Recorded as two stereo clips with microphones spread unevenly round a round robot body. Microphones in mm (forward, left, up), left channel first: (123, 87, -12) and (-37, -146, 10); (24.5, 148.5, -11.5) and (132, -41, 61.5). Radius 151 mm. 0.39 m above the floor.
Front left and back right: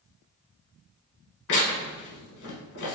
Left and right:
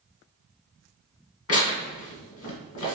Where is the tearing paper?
105° left, 1.2 m.